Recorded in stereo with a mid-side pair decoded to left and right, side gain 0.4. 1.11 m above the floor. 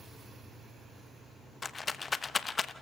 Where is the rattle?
35° left, 0.8 m.